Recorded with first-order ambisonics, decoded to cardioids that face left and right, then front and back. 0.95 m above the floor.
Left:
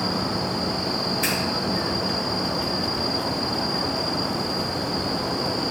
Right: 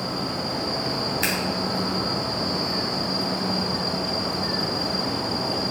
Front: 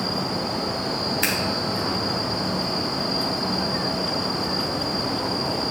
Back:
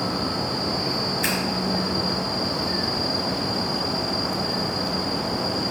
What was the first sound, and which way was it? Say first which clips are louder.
Scissors: right 1 dB, front 2 dB; 30° right.